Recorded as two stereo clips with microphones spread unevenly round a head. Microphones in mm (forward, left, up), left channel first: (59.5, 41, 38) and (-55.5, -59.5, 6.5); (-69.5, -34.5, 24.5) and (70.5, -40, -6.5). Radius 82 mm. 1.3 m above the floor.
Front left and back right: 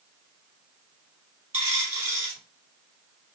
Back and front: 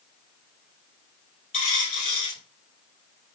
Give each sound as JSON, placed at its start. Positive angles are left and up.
{"t": 1.5, "sound": "a dropped coin", "azimuth_deg": 140, "distance_m": 2.5}